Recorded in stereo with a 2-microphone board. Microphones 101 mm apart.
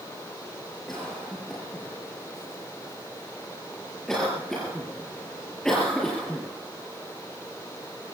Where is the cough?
5° left (ahead or behind), 5.5 m.